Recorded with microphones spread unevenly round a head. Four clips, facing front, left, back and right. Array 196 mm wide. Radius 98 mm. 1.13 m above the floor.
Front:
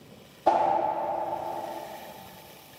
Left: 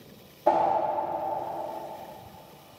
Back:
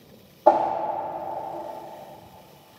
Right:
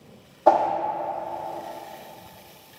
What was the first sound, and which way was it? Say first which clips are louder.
A whoosh: right 4 dB, back 4 dB; 145° right.